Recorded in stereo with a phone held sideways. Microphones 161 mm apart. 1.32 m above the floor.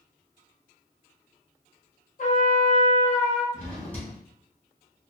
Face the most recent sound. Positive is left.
turn(degrees=10)  # may be behind; listen again after turning